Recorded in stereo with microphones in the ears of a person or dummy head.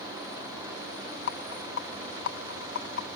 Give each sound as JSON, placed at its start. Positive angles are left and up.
{"t": 1.3, "sound": "a rattle", "side_deg": 70}